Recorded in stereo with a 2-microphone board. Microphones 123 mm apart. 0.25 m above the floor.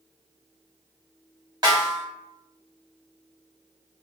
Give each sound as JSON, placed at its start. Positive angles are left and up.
{"t": 1.6, "sound": "a snare drum", "side_deg": -35, "distance_m": 1.4}